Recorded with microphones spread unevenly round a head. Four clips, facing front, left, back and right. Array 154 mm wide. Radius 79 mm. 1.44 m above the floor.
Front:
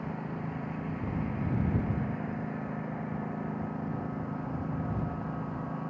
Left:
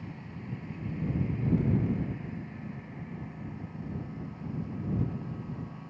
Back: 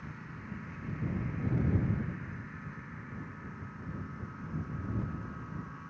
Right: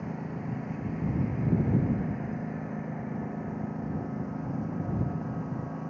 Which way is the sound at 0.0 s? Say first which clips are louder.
Right 7 dB, front 10 dB; 45° right.